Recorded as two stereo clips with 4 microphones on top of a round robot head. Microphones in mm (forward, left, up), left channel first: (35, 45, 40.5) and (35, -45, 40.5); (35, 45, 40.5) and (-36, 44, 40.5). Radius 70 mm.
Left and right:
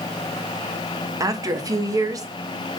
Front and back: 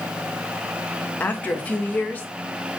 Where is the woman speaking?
60° right, 0.8 m.